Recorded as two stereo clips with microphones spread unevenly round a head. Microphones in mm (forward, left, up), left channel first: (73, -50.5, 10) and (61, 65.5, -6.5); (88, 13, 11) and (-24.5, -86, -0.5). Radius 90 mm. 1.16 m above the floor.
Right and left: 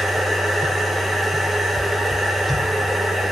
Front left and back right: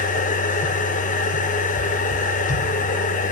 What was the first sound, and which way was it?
A machine running, 10° left.